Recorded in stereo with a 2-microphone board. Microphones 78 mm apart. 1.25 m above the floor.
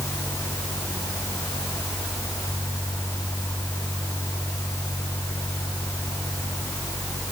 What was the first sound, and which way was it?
Only background noise.